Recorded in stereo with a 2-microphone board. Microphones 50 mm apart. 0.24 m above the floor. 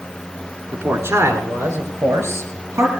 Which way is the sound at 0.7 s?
65° right (ahead or behind).